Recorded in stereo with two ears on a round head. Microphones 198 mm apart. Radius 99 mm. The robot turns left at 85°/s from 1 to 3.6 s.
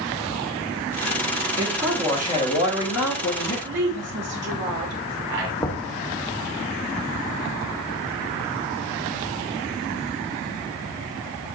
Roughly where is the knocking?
Centre.